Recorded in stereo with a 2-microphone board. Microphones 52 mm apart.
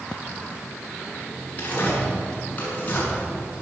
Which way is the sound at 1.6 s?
30° left (ahead or behind).